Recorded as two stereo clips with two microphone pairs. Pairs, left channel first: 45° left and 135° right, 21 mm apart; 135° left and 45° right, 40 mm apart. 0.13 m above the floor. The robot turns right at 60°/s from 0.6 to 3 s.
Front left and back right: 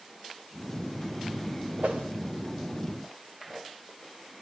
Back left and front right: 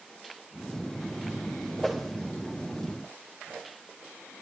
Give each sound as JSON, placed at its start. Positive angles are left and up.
{"t": 1.8, "sound": "a whoosh", "azimuth_deg": -140, "distance_m": 4.0}